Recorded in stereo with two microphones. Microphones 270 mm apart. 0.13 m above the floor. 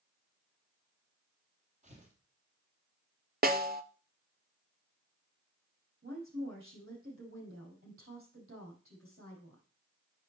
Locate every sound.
1.8 s tearing paper: 25° right (ahead or behind), 2.5 m
3.4 s a snare drum: 35° right (ahead or behind), 0.5 m
6.0 s a woman speaking: 50° right (ahead or behind), 5 m